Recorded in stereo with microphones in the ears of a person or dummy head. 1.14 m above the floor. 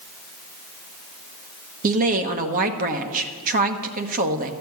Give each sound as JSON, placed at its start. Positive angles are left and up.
{"t": 1.8, "sound": "a woman speaking", "side_deg": -50, "distance_m": 1.2}